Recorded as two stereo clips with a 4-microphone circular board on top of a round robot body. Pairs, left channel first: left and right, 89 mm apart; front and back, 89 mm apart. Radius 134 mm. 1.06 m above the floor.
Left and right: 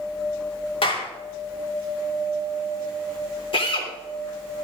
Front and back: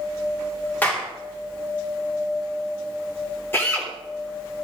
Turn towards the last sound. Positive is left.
turn(degrees=65)